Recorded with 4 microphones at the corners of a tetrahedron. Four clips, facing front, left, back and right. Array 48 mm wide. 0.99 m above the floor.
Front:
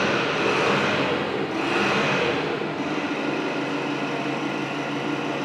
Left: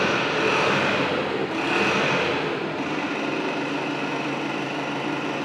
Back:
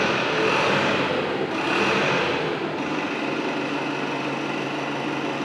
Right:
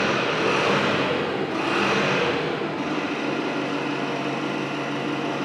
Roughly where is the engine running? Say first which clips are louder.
Even, back 1 dB; behind left.